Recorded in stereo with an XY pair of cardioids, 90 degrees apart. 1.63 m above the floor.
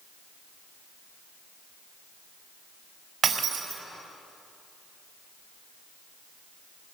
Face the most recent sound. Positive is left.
turn(degrees=-70)